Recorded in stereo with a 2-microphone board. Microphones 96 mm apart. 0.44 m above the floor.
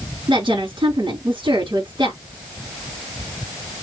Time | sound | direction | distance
0.3 | a woman speaking | 65° right (ahead or behind) | 5 m